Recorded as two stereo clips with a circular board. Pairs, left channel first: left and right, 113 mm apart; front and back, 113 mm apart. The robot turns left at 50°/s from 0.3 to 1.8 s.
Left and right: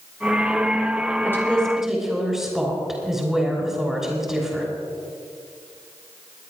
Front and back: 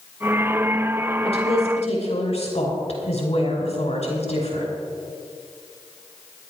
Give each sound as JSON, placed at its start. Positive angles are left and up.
{"t": 1.2, "sound": "a woman speaking", "azimuth_deg": 25, "distance_m": 5.5}